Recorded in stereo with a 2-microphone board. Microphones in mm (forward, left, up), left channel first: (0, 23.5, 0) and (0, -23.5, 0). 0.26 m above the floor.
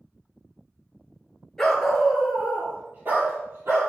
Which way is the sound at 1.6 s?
10° left (ahead or behind).